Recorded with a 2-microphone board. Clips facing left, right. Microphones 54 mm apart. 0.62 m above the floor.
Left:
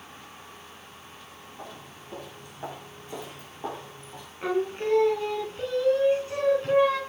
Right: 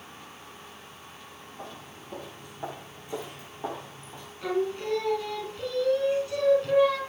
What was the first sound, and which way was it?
Footsteps, centre (ahead or behind).